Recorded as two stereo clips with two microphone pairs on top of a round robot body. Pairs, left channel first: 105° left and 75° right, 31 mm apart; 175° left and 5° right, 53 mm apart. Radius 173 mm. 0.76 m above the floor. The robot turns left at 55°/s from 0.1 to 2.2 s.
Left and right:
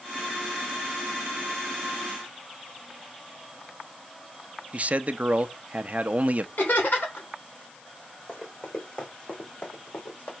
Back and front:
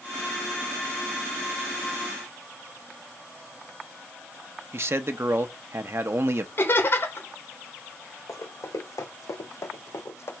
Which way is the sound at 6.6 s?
135° left.